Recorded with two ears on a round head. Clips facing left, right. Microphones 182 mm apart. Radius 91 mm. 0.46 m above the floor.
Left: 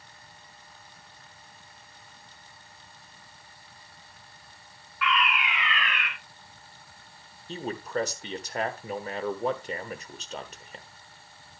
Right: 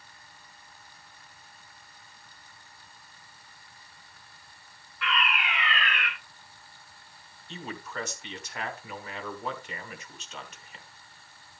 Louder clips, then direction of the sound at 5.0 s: Left 3 dB; 30° right (ahead or behind).